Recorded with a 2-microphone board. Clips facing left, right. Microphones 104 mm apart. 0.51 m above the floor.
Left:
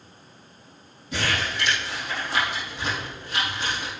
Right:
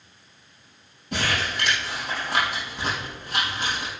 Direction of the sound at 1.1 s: 60° right (ahead or behind).